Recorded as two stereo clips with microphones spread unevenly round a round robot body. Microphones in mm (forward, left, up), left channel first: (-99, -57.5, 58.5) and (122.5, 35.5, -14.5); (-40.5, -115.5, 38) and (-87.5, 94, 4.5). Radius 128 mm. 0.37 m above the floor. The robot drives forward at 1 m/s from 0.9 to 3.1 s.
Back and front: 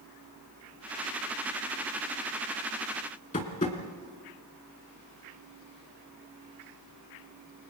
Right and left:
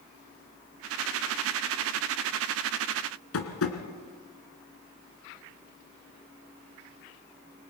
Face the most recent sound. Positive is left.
turn(degrees=-95)